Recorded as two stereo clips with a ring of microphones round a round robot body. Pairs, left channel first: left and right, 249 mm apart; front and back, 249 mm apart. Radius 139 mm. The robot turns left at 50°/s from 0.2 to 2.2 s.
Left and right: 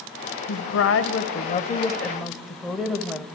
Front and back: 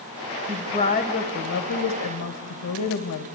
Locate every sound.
0.5 s a woman speaking: 85° left, 2.5 m; by 3.2 s straight ahead, 2.5 m